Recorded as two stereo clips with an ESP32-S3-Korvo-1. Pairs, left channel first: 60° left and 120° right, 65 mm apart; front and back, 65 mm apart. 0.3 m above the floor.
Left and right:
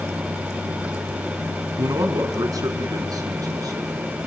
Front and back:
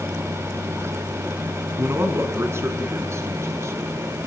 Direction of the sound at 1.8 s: 130° right.